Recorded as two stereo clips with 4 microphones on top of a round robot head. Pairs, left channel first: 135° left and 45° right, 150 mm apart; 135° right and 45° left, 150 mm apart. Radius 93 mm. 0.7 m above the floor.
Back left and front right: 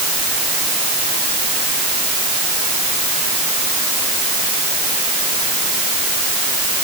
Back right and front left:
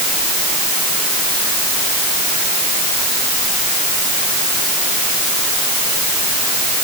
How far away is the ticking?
No ticking in this recording.